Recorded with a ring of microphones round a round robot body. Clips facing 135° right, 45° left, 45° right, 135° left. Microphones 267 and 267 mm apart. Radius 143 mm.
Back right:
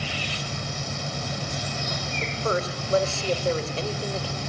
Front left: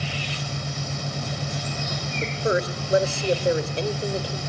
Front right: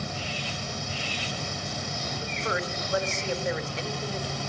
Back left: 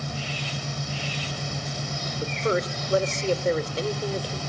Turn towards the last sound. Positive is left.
turn(degrees=110)